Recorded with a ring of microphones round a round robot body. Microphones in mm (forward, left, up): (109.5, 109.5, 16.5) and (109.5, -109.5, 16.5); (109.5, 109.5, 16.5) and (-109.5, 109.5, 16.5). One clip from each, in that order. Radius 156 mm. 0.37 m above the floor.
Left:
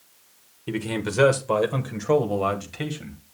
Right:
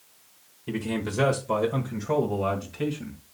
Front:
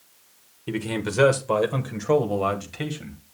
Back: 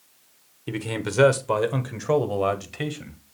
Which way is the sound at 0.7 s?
125° left.